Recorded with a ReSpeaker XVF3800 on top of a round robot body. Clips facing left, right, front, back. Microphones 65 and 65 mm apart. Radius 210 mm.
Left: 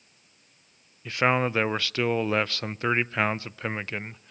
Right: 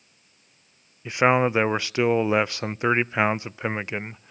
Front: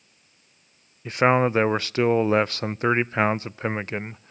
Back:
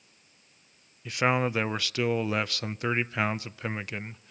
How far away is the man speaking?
About 0.5 m.